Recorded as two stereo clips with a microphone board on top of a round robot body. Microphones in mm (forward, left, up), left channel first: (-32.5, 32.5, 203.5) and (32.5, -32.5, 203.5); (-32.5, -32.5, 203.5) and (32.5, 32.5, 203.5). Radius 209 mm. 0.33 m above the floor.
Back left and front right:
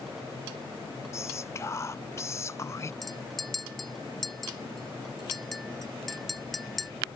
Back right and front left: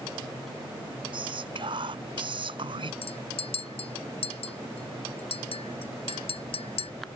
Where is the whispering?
75° left.